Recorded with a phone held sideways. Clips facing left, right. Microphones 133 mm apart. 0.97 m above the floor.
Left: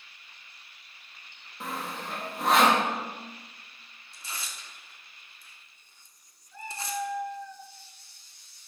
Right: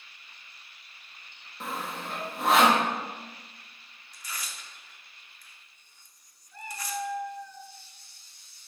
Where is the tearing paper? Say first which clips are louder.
Even; 25° left (ahead or behind), 1.0 m.